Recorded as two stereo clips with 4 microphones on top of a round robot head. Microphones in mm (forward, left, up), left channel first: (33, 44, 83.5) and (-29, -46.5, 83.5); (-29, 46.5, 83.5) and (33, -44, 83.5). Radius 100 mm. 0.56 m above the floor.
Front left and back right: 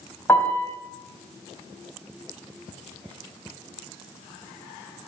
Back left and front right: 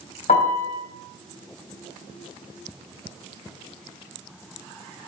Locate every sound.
0.3 s a piano: 125° left, 3 m